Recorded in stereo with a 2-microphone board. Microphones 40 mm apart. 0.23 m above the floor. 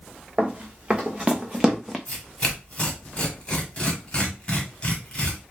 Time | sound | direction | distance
0.4 | running footsteps | 30° right (ahead or behind) | 1.4 m
2.1 | tearing paper | 25° left (ahead or behind) | 1.2 m